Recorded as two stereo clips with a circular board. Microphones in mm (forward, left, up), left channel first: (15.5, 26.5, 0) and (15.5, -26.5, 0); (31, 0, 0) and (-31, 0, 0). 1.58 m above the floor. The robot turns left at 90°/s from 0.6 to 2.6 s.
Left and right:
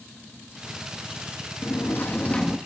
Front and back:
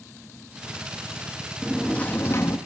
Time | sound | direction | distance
1.6 | a sliding door | 95° left | 1.2 m